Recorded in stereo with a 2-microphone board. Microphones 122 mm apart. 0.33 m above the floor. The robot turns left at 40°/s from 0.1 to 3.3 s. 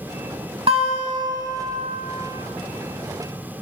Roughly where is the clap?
I don't hear a clap.